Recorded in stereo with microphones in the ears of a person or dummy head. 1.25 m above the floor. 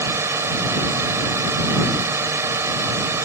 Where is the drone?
10° right (ahead or behind).